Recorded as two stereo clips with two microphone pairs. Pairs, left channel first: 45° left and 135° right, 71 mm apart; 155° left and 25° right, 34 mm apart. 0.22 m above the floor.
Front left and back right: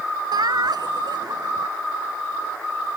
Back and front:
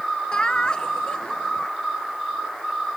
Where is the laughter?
145° right.